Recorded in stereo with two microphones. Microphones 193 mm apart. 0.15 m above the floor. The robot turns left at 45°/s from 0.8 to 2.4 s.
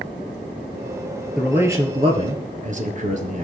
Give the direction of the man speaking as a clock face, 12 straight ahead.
12 o'clock.